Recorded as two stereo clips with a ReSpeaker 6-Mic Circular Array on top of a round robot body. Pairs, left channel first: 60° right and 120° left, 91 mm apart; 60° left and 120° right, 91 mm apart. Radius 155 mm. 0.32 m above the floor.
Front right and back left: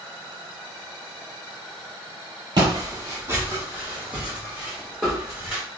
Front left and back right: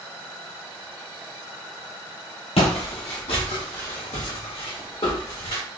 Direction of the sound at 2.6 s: 75° left.